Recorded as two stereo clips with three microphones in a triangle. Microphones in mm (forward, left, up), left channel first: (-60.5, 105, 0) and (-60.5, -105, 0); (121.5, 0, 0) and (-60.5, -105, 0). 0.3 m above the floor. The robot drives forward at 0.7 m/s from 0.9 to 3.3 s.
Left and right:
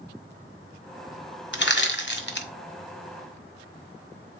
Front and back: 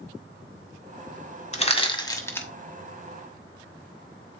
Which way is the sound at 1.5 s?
80° left.